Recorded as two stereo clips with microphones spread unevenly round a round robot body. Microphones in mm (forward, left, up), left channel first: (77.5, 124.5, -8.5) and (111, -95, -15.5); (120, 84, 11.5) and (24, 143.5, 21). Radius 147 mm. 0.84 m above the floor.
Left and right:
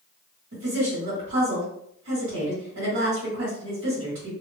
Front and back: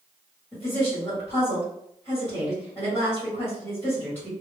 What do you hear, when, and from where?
0.5 s a woman speaking: 100° right, 1.5 m